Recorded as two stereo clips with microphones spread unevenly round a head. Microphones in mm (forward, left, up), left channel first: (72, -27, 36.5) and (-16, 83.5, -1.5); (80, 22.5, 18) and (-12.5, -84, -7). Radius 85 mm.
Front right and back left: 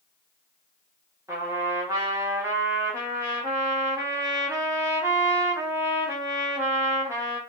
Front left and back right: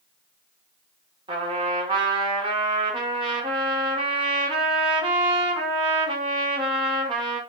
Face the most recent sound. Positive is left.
turn(degrees=-145)